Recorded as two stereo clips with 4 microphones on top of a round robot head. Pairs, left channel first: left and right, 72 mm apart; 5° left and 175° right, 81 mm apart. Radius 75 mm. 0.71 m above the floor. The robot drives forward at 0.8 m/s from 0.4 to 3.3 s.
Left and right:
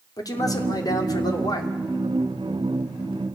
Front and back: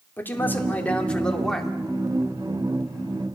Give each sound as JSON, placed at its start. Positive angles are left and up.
{"t": 0.2, "sound": "a man speaking", "azimuth_deg": 70, "distance_m": 2.5}